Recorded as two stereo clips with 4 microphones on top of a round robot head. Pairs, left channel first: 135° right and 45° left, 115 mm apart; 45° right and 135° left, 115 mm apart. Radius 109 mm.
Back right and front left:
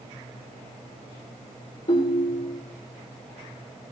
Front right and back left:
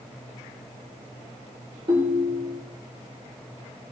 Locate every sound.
1.9 s a ringtone: 175° right, 1.7 m